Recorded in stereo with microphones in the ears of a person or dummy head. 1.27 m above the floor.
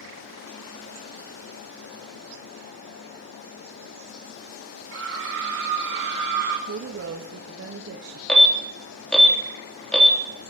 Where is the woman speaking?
65° right (ahead or behind), 1.3 m.